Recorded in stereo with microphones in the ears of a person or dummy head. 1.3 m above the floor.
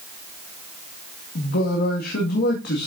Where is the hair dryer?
No hair dryer in this recording.